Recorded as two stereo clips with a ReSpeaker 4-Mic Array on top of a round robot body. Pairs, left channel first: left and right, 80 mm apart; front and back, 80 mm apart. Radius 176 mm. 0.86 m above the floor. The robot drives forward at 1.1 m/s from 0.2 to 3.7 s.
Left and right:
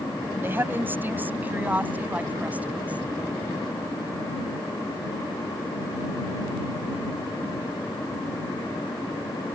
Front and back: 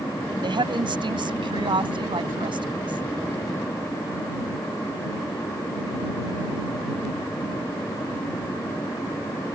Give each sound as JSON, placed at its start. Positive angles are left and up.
{"t": 0.4, "sound": "a woman speaking", "azimuth_deg": -155}